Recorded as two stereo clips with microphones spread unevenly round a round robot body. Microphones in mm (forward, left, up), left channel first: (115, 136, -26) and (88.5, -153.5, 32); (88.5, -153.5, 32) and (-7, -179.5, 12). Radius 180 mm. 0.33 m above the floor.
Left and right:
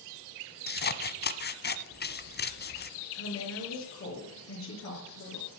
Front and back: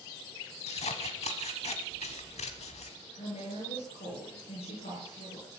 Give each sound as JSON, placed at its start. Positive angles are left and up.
{"t": 0.7, "sound": "scissors", "azimuth_deg": 30, "distance_m": 1.1}
{"t": 3.1, "sound": "a woman speaking", "azimuth_deg": 45, "distance_m": 6.0}